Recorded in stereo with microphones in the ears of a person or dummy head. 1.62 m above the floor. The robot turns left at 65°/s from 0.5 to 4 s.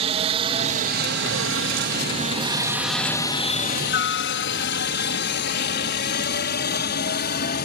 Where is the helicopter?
35° right (ahead or behind); by 7.7 s 50° left (ahead or behind).